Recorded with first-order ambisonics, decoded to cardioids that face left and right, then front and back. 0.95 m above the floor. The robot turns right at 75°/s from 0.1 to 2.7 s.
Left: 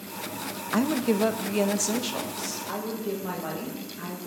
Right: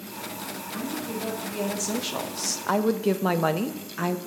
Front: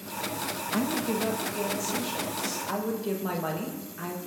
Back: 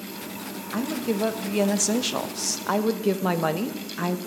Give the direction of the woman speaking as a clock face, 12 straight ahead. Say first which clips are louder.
Left 9 dB, back 3 dB; 9 o'clock.